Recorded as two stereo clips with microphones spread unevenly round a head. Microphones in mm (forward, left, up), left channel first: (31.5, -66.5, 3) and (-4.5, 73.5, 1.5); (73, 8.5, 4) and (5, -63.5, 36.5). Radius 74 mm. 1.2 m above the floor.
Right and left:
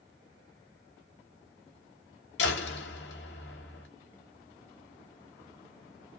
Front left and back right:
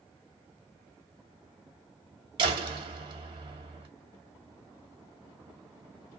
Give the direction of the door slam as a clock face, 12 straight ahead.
3 o'clock.